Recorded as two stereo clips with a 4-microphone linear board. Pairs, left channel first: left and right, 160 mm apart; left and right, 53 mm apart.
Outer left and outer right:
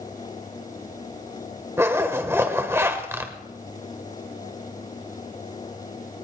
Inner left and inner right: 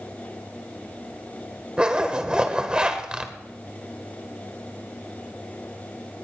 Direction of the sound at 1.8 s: 15° right (ahead or behind).